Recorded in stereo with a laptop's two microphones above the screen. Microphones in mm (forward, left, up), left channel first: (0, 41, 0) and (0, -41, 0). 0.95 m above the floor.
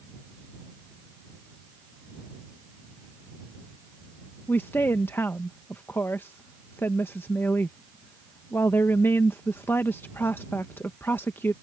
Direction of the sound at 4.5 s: 25° left (ahead or behind).